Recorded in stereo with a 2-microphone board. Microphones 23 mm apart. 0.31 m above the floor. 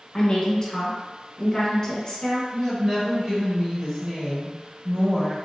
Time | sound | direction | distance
0.1 | a woman speaking | 20° left (ahead or behind) | 1.1 m
2.5 | a woman speaking | 15° right (ahead or behind) | 1.0 m